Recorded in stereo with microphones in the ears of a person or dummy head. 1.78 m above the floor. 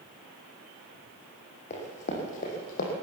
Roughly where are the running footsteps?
Left.